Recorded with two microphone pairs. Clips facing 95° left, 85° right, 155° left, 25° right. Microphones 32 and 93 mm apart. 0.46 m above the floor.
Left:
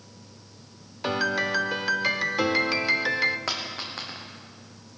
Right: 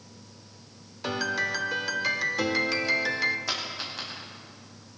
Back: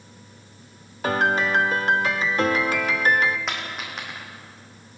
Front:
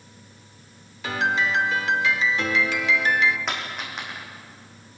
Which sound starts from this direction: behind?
A piano, at 1.0 s.